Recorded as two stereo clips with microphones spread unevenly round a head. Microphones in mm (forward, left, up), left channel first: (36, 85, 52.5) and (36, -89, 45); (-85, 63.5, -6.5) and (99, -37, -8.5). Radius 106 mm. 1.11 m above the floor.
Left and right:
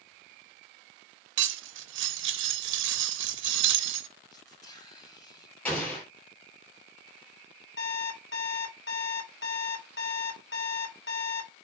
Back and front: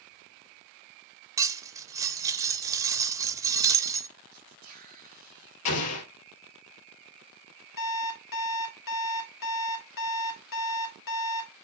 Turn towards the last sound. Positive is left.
turn(degrees=120)